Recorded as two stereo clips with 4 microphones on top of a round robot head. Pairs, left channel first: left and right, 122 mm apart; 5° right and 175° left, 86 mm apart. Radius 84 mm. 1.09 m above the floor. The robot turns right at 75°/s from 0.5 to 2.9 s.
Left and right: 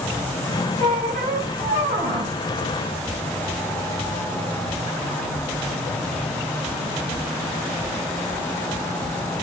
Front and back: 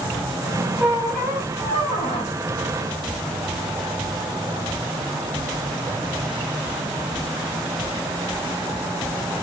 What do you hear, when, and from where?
0.8 s a squeak: 125° right, 2.5 m; by 2.3 s 10° right, 2.5 m